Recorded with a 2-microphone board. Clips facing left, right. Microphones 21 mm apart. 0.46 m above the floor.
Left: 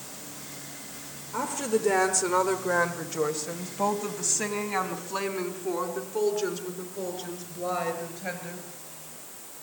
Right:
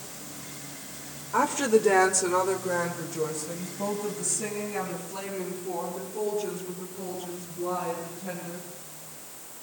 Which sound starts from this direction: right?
A woman speaking, at 1.3 s.